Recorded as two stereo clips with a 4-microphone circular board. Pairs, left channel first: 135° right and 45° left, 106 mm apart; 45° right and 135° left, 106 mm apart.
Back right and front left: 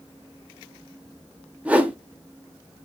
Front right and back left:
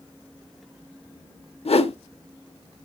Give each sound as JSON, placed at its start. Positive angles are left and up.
{"t": 1.6, "sound": "a whoosh", "azimuth_deg": -30, "distance_m": 0.5}